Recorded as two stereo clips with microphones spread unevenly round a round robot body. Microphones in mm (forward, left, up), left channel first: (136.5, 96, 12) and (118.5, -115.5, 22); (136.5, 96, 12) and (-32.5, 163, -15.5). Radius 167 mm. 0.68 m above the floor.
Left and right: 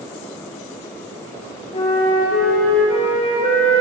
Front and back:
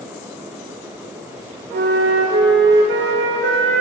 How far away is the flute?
About 0.9 m.